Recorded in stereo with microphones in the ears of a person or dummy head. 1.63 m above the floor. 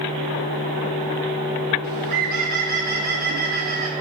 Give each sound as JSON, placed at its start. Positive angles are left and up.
{"t": 1.8, "sound": "a bird", "side_deg": -50, "distance_m": 0.9}